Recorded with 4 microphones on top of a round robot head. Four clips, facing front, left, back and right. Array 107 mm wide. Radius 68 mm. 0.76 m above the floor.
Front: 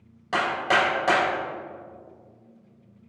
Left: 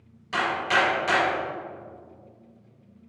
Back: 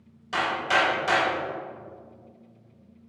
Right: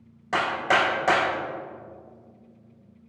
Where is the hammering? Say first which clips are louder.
Right 1 dB, front 2 dB; 50° right, 3 m.